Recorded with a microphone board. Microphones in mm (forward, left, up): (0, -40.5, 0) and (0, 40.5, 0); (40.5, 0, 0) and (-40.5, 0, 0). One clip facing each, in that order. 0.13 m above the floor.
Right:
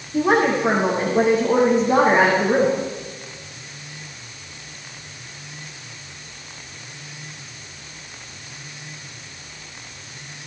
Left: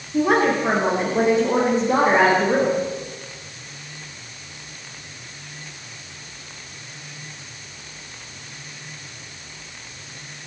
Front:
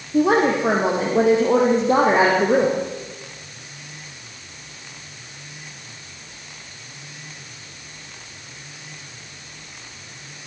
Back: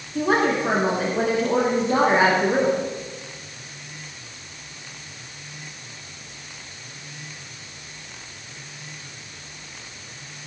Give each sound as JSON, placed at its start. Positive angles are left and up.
{"t": 0.1, "sound": "a woman speaking", "azimuth_deg": -5, "distance_m": 6.0}